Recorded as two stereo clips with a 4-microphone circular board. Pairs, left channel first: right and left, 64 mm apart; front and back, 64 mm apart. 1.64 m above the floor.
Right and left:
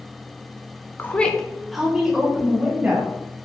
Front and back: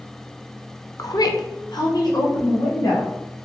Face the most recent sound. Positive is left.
turn(degrees=20)